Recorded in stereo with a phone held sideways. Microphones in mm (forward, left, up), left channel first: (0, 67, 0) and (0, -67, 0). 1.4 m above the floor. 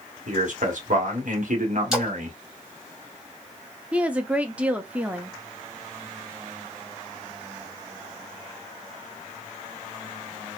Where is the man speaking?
65° right (ahead or behind), 1.2 m.